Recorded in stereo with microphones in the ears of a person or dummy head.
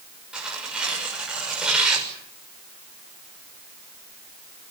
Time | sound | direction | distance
0.3 | tearing paper | 5° right (ahead or behind) | 6.5 m